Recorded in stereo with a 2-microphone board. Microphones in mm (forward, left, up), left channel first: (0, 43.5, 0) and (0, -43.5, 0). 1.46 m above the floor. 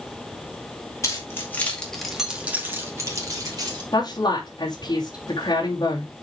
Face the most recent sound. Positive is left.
turn(degrees=50)  # may be behind; listen again after turning